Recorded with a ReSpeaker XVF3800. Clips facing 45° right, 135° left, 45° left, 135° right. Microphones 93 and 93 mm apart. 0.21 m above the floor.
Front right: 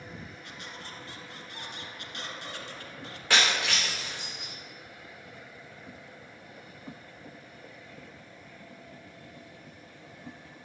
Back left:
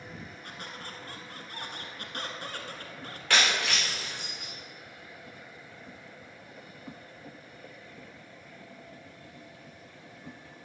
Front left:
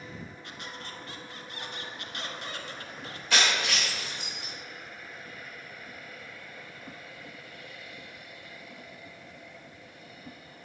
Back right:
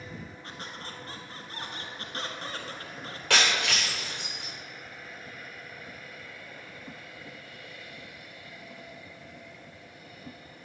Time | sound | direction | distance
0.4 | a squeak | 175° left | 1.1 m
3.3 | breaking glass | 120° right | 3.5 m